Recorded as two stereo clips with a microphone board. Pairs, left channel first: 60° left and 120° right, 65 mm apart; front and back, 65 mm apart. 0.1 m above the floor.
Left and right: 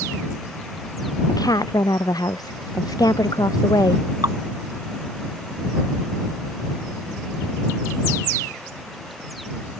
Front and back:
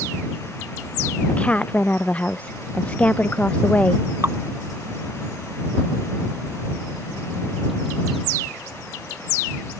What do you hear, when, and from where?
1.3 s a woman speaking: 70° left
4.2 s dripping: 130° right